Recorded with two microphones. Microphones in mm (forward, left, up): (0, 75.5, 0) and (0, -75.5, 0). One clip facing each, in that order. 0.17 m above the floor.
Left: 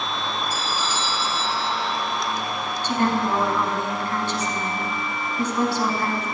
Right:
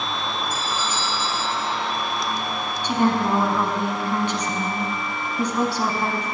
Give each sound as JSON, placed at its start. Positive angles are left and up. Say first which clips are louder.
{"t": 0.5, "sound": "a doorbell", "louder": "even", "side_deg": 35, "distance_m": 4.0}
{"t": 2.8, "sound": "a woman speaking", "louder": "right 2 dB", "side_deg": -15, "distance_m": 1.1}